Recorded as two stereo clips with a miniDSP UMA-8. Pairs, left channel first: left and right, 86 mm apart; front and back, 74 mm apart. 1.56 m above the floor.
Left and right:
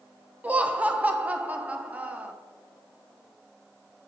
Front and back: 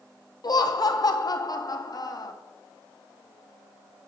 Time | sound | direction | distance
0.4 | laughter | 20° right | 0.5 m